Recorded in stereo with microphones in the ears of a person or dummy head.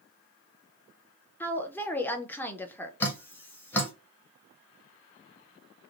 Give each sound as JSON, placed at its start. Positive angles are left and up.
{"t": 1.4, "sound": "a woman speaking", "side_deg": 10, "distance_m": 0.6}
{"t": 3.0, "sound": "dripping", "side_deg": 10, "distance_m": 1.0}